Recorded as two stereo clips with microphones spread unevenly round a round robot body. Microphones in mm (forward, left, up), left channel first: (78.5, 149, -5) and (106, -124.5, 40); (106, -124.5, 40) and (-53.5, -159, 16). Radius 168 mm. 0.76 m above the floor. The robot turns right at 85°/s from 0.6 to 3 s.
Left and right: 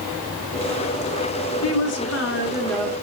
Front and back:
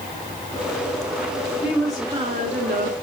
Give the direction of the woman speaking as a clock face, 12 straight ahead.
9 o'clock.